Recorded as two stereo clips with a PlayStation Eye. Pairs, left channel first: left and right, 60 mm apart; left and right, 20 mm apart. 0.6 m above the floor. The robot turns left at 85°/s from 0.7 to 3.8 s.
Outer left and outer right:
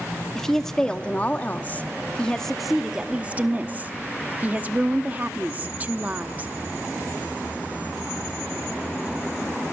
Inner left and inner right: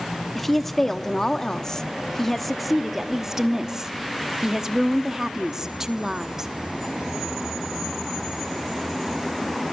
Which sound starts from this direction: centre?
A woman speaking, at 0.3 s.